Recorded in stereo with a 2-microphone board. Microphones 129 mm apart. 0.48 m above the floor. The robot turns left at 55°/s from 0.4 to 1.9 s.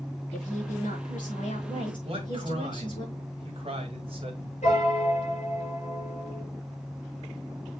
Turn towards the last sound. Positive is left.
turn(degrees=60)  # may be behind; listen again after turning